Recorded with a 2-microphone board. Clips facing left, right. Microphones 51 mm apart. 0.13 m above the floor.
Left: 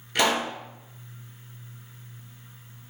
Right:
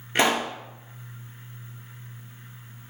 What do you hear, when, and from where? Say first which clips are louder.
0.1 s a pop: right 1 dB; 30° right (ahead or behind), 0.9 m